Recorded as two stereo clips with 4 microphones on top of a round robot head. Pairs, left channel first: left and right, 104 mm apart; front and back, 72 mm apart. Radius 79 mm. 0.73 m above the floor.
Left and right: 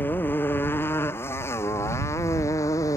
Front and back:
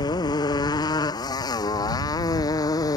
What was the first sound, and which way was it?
A motorcycle, 15° left.